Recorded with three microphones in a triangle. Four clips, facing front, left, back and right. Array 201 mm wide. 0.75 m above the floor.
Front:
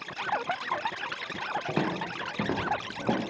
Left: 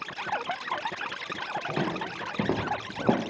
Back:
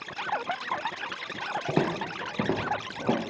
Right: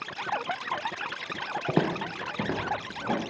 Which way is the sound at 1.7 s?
115° right.